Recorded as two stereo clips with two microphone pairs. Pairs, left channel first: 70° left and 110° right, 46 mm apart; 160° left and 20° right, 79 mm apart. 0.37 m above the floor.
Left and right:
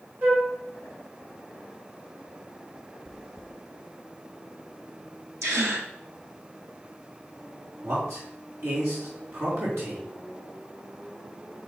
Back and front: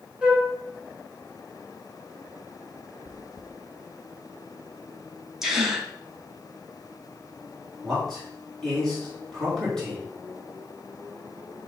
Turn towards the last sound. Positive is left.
turn(degrees=-120)